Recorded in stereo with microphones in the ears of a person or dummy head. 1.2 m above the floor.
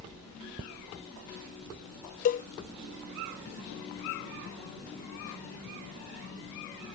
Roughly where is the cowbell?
Left.